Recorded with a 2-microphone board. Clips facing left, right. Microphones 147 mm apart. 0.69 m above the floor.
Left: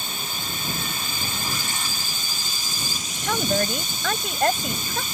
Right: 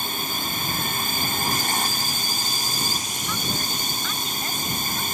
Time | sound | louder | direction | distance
0.0 | a drone | right 4 dB | 55° right (ahead or behind) | ?
3.2 | a woman speaking | left 9 dB | 70° left (ahead or behind) | ?